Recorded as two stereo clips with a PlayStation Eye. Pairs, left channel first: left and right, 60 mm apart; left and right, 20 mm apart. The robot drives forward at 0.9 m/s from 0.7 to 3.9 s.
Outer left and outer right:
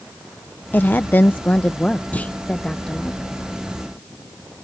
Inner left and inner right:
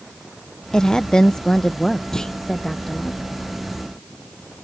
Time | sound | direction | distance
0.7 | a woman speaking | 30° left (ahead or behind) | ?
2.1 | a clunk | 25° left (ahead or behind) | ?